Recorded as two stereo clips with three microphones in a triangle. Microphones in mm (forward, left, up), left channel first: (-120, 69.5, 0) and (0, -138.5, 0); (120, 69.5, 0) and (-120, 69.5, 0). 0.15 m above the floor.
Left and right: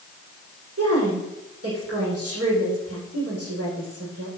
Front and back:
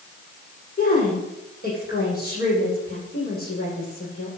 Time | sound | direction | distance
0.8 | a woman speaking | 50° right | 7.5 m